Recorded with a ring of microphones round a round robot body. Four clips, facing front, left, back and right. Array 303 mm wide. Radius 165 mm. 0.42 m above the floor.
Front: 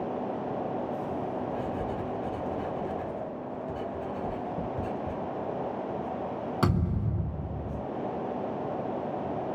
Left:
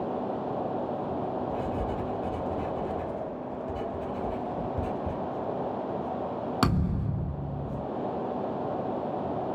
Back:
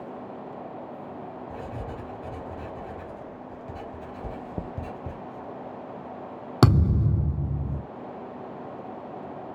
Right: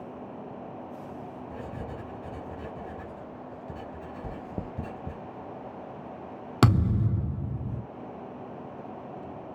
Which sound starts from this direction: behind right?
Chewing, at 4.2 s.